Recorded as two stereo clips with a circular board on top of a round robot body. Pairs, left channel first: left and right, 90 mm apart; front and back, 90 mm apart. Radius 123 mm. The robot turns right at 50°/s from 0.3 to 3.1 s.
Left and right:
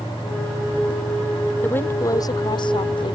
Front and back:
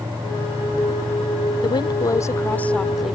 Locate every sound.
1.6 s a woman speaking: 20° left; by 3.2 s 95° left